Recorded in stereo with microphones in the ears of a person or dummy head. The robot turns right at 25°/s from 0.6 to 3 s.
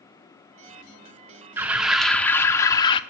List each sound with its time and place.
1.6 s an alarm: 10° right, 0.6 m; by 3.0 s 25° left, 0.6 m